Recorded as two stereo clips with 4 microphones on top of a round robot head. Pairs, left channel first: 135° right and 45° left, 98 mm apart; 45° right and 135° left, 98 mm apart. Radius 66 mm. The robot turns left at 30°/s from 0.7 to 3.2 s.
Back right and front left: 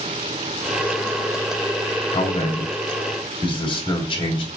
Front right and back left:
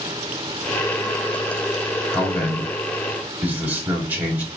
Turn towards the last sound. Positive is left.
turn(degrees=-155)